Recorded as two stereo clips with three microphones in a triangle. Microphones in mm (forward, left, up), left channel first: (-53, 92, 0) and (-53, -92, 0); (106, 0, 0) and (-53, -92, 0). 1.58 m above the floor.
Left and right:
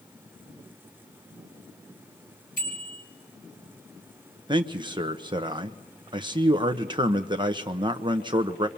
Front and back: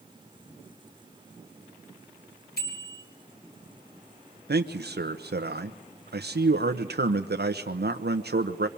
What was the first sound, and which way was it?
A bicycle bell, 55° left.